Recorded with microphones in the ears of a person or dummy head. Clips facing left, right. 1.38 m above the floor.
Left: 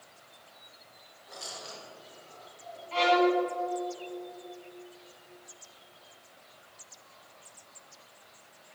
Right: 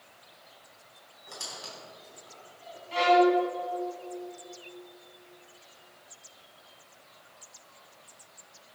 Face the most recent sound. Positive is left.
turn(degrees=-15)  # may be behind; listen again after turning